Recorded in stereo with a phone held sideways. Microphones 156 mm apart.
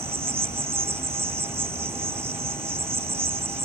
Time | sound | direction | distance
0.0 | an insect | 15° right (ahead or behind) | ?